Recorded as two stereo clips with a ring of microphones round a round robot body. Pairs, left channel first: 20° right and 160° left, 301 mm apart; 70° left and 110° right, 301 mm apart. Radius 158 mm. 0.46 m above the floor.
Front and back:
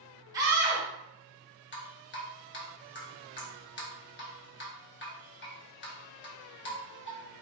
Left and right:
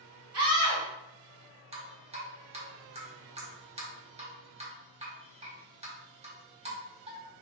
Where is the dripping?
50° right, 1.4 m.